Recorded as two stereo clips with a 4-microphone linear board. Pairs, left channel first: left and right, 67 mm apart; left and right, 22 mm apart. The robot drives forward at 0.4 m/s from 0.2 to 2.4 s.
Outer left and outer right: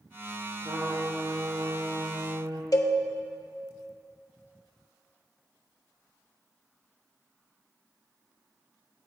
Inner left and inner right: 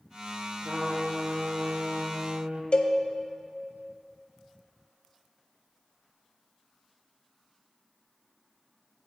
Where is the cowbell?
60° left (ahead or behind), 0.7 m.